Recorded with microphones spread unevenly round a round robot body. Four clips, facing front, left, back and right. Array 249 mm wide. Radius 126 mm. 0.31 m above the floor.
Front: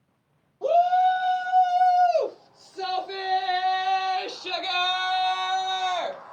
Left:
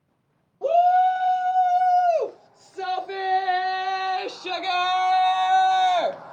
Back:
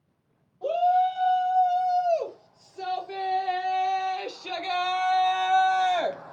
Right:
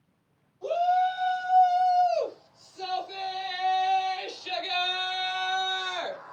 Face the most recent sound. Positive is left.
turn(degrees=130)